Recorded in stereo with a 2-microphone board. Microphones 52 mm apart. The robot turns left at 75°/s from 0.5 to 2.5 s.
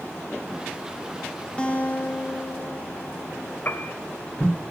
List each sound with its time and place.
1.6 s a guitar: 155° left, 2 m; by 3.5 s 85° left, 2 m
3.6 s a piano: 40° left (ahead or behind), 1.4 m